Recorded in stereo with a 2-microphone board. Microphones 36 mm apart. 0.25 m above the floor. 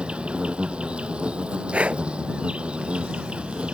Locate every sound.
0.0 s an insect: 35° right (ahead or behind)
1.7 s breathing: 40° right (ahead or behind)